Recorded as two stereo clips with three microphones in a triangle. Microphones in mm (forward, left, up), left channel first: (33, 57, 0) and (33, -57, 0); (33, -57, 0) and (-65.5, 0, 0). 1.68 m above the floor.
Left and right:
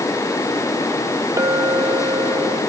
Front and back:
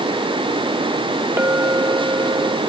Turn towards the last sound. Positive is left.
turn(degrees=-145)